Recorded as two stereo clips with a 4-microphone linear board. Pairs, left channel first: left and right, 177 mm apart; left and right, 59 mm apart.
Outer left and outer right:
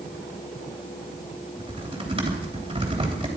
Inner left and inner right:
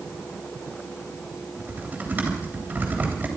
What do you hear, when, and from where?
1.6 s typing on a keyboard: 30° right (ahead or behind), 3 m